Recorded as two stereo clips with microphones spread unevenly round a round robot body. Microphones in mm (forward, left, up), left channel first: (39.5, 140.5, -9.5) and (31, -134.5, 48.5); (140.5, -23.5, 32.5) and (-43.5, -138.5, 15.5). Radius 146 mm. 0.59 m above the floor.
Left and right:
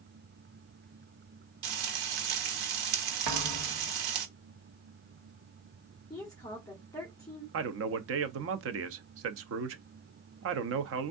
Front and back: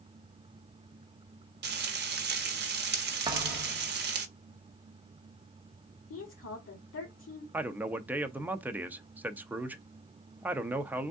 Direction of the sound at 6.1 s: 15° left.